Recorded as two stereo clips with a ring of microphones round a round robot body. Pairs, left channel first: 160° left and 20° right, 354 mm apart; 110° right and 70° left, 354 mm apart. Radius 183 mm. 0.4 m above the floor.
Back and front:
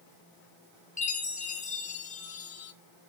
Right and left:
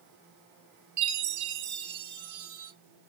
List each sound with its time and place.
1.0 s a chime: 90° left, 1.0 m